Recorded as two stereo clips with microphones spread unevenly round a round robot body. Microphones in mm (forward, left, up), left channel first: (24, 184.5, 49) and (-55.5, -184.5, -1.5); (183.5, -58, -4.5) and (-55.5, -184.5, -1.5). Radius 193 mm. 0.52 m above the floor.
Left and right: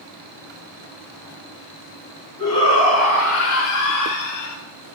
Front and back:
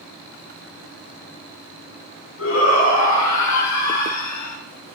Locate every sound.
2.4 s a shout: straight ahead, 4 m; by 4.6 s 40° left, 4 m